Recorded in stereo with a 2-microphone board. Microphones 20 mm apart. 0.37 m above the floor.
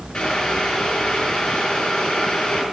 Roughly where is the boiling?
Left.